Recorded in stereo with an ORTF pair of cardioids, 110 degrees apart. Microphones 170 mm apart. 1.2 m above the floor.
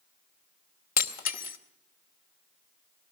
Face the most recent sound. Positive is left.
turn(degrees=60)